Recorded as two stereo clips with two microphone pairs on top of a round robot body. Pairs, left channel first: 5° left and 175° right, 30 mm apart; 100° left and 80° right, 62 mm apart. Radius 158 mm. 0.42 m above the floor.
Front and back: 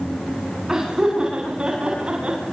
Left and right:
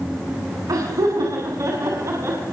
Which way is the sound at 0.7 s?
105° right.